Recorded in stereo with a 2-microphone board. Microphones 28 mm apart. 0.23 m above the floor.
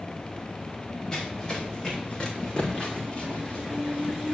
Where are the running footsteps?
20° left (ahead or behind), 8.5 m; by 4.3 s 45° left (ahead or behind), 6.5 m.